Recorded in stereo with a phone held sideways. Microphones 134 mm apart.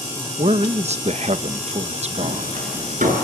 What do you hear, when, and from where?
0.4 s a man speaking: 55° right (ahead or behind), 1.0 m
2.2 s hammering: 85° right, 8 m